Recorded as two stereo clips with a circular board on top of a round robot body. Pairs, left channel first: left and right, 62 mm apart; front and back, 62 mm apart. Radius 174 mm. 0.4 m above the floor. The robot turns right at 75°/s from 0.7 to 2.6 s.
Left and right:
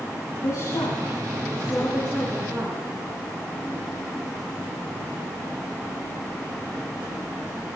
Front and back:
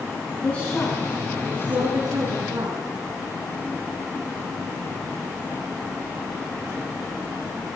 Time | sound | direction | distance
0.4 | a woman speaking | 70° left | 6.5 m